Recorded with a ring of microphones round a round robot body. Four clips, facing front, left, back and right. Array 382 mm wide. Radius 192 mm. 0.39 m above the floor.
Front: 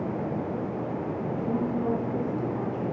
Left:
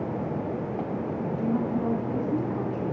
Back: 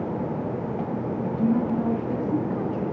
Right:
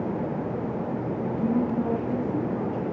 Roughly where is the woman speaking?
Behind.